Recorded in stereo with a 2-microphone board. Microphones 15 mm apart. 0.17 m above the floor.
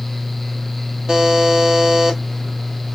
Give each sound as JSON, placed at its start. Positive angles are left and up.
{"t": 1.1, "sound": "a buzzer", "side_deg": -70, "distance_m": 0.8}